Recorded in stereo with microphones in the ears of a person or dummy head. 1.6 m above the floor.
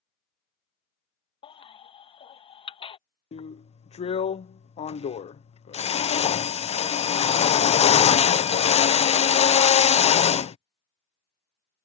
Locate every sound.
1.4 s a baby crying: 30° left (ahead or behind)
3.3 s a drill: 35° left (ahead or behind)